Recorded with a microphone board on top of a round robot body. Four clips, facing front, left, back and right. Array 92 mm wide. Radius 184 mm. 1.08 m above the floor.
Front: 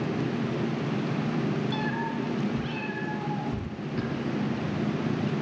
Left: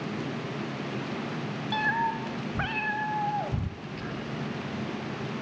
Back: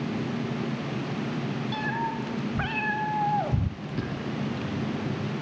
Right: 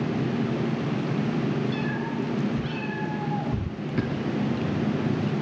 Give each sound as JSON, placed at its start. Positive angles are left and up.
{"t": 1.7, "sound": "a cat meowing", "azimuth_deg": 95, "distance_m": 1.5}
{"t": 3.8, "sound": "a bird", "azimuth_deg": -90, "distance_m": 6.0}